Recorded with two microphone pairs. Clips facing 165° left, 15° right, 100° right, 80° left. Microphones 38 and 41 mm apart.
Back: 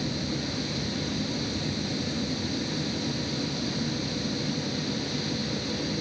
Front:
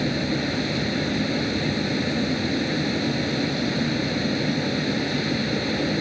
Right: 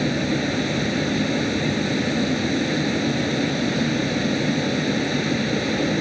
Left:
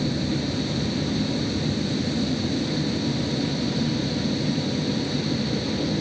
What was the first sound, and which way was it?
A vehicle, 60° right.